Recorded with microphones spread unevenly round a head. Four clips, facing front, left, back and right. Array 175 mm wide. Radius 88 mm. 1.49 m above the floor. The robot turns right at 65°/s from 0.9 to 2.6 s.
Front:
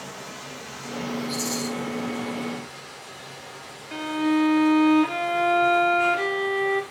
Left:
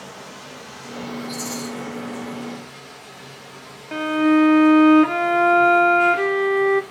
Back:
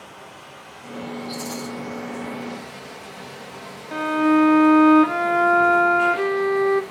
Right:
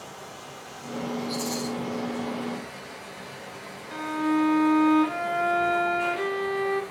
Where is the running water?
55° left, 1.6 m; by 6.9 s 165° left, 1.6 m.